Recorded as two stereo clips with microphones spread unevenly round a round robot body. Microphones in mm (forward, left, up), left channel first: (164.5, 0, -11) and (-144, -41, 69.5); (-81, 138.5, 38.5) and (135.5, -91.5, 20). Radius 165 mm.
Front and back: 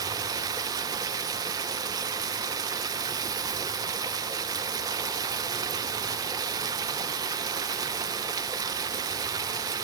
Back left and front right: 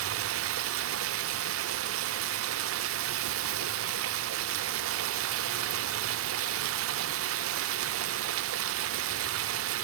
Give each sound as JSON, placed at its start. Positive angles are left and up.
{"t": 0.0, "sound": "running water", "azimuth_deg": -85, "distance_m": 0.8}